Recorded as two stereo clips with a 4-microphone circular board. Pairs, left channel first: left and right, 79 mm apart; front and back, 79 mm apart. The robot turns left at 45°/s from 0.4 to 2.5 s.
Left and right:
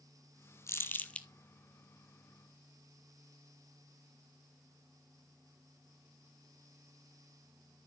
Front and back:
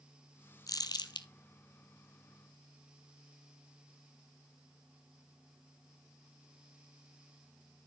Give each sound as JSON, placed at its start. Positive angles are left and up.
{"t": 0.7, "sound": "crumpling", "azimuth_deg": 35, "distance_m": 0.8}